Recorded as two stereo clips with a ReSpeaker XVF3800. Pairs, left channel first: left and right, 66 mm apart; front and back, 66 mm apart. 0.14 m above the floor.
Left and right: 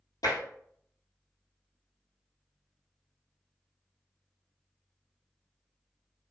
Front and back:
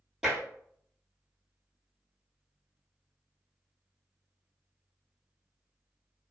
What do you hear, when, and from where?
0.2 s tapping: 100° left, 1.4 m